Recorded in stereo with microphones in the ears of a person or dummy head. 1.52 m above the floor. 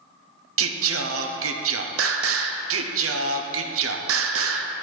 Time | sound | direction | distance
0.6 | singing | 70° right (ahead or behind) | 0.6 m